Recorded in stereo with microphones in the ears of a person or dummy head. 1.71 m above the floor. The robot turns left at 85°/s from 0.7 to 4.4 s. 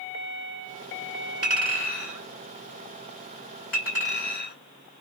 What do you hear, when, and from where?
1.4 s a clink: 35° right (ahead or behind), 1.7 m; by 4.5 s 60° left (ahead or behind), 1.7 m